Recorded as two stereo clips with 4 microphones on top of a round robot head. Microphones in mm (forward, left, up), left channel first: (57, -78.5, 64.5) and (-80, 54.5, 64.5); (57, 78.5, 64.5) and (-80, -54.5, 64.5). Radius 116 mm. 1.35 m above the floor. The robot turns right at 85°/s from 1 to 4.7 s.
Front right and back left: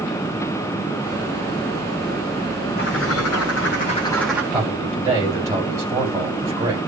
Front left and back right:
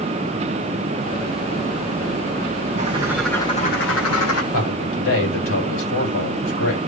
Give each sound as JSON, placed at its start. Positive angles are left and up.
{"t": 2.8, "sound": "a bird", "azimuth_deg": -85, "distance_m": 1.7}
{"t": 4.5, "sound": "a man speaking", "azimuth_deg": 45, "distance_m": 7.0}